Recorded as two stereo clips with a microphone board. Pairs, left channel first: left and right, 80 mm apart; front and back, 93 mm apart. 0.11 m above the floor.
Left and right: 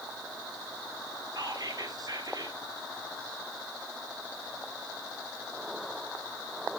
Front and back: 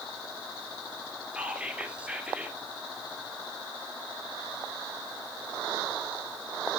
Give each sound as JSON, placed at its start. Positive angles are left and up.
{"t": 1.3, "sound": "whispering", "azimuth_deg": -105, "distance_m": 2.5}